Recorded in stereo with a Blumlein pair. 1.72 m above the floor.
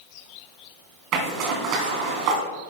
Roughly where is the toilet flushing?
I don't hear a toilet flushing.